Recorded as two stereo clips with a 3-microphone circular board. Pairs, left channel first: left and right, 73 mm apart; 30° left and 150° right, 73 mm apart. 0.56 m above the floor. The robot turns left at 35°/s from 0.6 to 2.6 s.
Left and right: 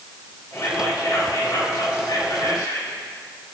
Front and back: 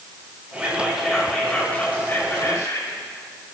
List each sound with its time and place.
0.5 s whispering: 140° left, 3 m; by 3.0 s 70° left, 3 m